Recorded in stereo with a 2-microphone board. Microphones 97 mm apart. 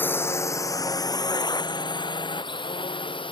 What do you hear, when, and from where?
0.0 s a drone: 20° left (ahead or behind); by 3.3 s 55° left (ahead or behind)